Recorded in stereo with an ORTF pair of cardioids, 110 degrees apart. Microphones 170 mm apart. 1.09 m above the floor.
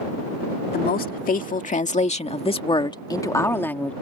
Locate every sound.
0.7 s a woman speaking: 65° left; by 3.9 s 5° left